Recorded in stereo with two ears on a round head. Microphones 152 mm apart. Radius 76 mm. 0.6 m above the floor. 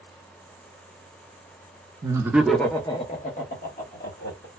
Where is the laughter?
25° right (ahead or behind), 0.6 m; by 4.5 s 65° left (ahead or behind), 1.3 m.